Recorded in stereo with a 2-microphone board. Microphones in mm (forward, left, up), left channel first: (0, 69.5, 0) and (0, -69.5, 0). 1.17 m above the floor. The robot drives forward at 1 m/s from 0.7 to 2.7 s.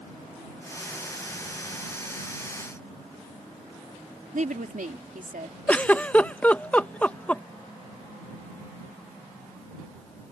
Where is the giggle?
10° left (ahead or behind).